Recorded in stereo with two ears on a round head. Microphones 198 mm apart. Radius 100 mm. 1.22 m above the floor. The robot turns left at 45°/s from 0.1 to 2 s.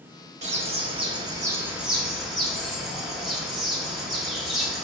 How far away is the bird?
About 0.8 m.